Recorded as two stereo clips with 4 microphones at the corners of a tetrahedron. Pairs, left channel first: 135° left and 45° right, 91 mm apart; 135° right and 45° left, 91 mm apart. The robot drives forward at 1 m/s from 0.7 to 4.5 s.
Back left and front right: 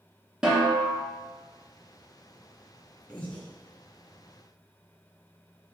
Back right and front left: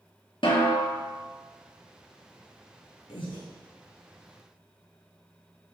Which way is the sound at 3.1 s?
150° right.